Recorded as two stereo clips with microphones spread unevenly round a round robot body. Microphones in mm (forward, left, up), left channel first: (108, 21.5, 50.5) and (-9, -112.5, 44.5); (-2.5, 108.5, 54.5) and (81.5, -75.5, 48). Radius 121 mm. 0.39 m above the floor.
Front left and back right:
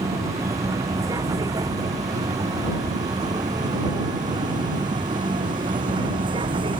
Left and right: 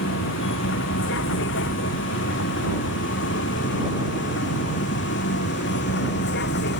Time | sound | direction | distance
0.0 | a vehicle | 150° left | ?